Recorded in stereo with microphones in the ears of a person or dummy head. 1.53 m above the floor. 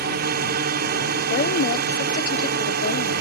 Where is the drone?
55° right (ahead or behind); by 3.2 s 60° right (ahead or behind).